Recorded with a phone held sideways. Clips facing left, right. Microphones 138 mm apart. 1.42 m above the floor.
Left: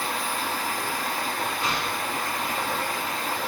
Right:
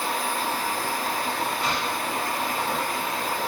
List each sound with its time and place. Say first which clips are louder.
0.0 s a machine running: right 2 dB; 25° right (ahead or behind), 1.0 m
1.6 s an explosion: right 1 dB; 15° left (ahead or behind), 1.3 m